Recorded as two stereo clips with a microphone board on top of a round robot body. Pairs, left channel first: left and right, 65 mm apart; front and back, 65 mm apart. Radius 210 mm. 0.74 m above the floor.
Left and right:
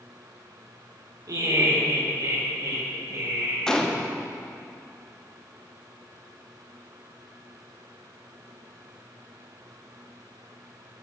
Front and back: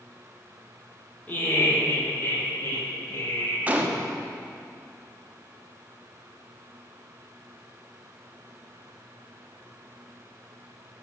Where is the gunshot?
155° left, 1.1 m.